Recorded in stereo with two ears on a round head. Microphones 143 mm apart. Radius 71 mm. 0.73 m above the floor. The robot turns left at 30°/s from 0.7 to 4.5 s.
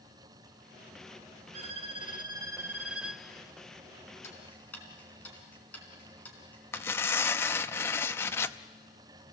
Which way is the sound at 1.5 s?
130° right.